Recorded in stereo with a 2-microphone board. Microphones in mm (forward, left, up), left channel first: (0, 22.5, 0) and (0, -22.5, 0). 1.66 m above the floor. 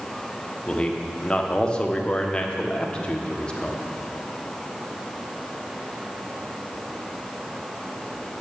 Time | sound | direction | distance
0.7 | a man speaking | 20° left (ahead or behind) | 1.3 m